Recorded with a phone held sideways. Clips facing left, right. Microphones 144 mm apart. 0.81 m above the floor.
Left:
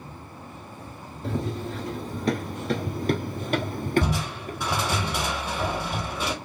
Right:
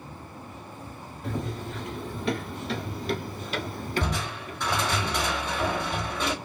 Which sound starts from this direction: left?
Running footsteps, at 1.2 s.